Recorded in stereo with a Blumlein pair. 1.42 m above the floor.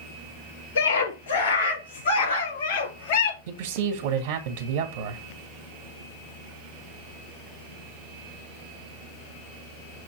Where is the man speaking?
50° right, 1.7 m.